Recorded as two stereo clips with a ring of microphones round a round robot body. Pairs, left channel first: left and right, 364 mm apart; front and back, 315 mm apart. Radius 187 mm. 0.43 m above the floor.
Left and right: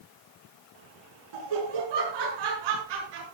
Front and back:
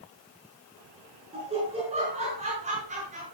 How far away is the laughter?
About 6.5 m.